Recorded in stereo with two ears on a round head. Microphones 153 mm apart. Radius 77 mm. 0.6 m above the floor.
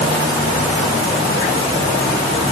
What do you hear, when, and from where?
Only background noise.